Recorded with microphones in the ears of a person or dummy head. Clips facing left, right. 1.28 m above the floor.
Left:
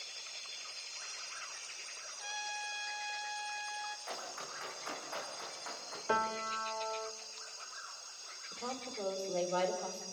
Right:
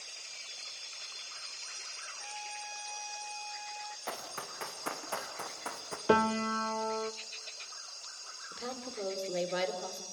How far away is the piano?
About 0.7 m.